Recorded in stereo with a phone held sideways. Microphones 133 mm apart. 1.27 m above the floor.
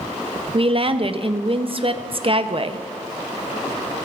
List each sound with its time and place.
0.5 s a woman speaking: 45° right (ahead or behind), 0.6 m